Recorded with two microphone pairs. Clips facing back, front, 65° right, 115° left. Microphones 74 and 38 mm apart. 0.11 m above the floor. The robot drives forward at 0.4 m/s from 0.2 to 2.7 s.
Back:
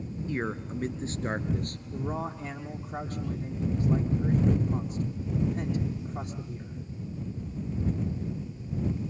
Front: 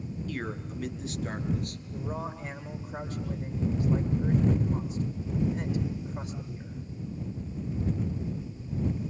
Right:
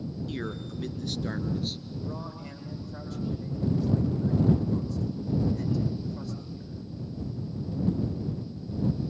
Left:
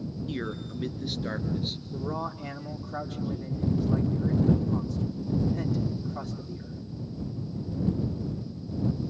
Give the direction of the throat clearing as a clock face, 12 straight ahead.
No throat clearing in this recording.